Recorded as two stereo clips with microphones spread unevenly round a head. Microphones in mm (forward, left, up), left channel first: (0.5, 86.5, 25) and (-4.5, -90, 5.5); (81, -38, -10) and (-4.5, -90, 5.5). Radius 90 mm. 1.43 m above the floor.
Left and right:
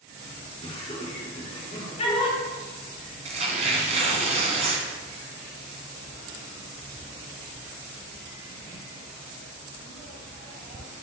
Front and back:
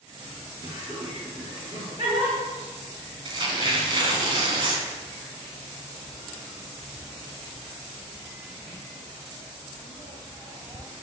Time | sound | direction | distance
0.6 | laughter | 150° left | 4.5 m
3.2 | tearing paper | 150° right | 2 m